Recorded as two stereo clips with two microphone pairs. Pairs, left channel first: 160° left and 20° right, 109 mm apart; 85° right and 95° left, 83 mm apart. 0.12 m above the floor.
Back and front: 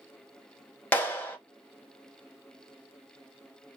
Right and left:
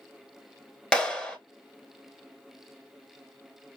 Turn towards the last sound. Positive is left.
turn(degrees=-145)